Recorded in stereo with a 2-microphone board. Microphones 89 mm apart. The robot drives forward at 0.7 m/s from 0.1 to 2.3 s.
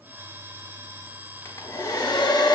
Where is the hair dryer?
30° left (ahead or behind), 0.8 m; by 2.5 s 50° left (ahead or behind), 0.5 m.